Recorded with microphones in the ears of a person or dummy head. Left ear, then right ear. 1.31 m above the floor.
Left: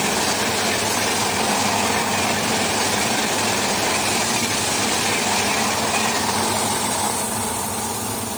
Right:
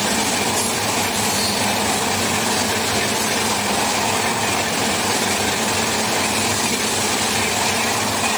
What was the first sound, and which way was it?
Only background noise.